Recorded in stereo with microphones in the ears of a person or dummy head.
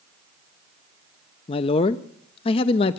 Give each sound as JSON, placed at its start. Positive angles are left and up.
{"t": 1.5, "sound": "a man speaking", "side_deg": 35, "distance_m": 0.6}